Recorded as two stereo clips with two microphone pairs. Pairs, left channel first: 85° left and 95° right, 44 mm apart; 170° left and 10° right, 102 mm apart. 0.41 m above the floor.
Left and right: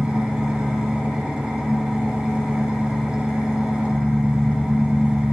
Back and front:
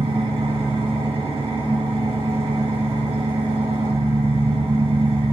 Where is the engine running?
20° right, 2.5 m.